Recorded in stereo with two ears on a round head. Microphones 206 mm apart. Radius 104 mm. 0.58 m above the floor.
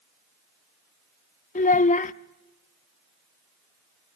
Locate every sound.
1.6 s a child speaking: 35° left (ahead or behind), 0.6 m